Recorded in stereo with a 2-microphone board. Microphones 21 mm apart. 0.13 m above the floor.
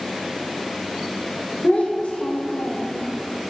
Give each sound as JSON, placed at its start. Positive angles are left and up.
{"t": 1.6, "sound": "a child speaking", "side_deg": 80, "distance_m": 3.5}